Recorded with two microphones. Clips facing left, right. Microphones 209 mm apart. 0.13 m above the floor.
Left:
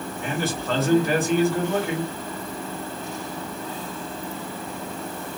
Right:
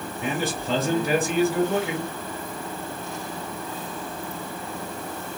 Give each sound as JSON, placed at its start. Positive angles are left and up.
{"t": 0.2, "sound": "a man speaking", "side_deg": -15, "distance_m": 1.8}